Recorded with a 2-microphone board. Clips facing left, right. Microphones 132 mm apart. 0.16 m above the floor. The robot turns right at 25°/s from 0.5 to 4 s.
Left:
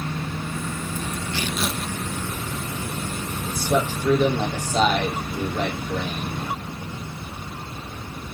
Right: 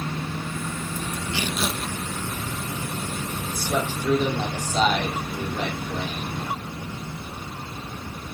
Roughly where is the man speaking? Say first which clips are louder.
Left 4 dB; left.